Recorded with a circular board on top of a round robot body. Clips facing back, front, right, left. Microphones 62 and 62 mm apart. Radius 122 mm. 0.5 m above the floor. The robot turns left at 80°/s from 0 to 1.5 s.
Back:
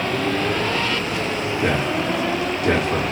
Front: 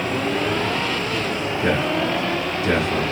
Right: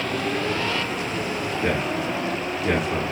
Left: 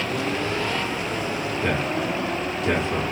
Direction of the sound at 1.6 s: 170° right.